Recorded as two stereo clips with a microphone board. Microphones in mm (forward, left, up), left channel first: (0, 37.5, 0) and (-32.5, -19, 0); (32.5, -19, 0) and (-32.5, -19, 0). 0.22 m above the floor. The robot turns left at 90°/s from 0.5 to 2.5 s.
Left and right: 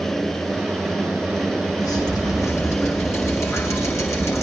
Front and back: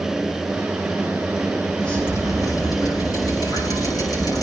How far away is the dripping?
About 8 m.